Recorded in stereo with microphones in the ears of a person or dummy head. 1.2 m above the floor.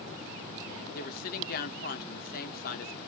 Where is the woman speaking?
45° left (ahead or behind), 0.7 m.